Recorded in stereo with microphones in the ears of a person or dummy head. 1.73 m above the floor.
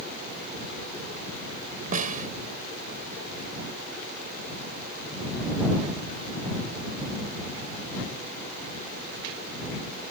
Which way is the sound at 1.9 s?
40° right (ahead or behind).